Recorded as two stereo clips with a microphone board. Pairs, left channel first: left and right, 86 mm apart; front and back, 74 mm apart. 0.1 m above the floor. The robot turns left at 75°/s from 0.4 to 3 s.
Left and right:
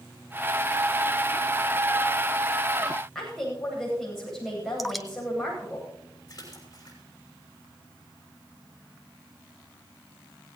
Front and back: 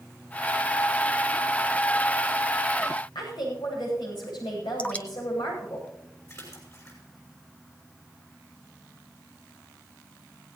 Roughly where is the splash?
Ahead left.